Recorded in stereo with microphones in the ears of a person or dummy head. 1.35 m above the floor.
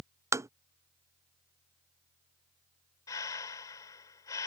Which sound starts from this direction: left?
Breathing, at 3.1 s.